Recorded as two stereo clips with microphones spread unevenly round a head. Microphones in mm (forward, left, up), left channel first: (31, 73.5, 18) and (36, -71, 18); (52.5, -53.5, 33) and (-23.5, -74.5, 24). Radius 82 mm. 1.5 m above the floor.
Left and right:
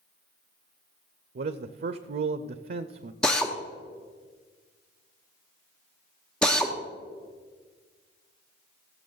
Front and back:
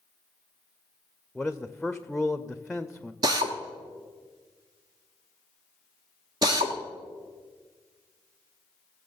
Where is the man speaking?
75° right, 0.6 m.